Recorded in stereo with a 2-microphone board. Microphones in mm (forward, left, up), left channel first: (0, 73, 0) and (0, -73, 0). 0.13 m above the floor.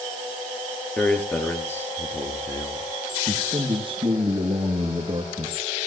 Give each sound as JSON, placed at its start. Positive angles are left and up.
{"t": 1.0, "sound": "a man speaking", "side_deg": 10, "distance_m": 3.0}
{"t": 3.3, "sound": "a man speaking", "side_deg": -35, "distance_m": 2.5}